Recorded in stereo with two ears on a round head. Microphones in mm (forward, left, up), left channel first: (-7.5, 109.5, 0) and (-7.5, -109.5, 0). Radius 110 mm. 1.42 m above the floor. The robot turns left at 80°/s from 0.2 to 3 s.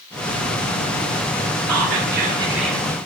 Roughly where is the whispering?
Right.